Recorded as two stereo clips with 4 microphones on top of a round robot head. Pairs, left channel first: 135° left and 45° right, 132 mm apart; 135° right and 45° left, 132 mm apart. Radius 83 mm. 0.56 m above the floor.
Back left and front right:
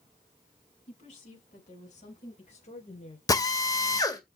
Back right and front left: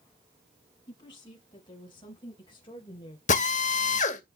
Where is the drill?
160° right, 2 m.